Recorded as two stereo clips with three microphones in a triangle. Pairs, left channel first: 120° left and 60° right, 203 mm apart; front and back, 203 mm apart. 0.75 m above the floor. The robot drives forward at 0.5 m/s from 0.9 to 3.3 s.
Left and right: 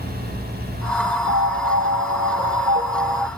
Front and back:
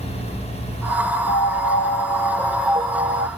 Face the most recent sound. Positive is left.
turn(degrees=-135)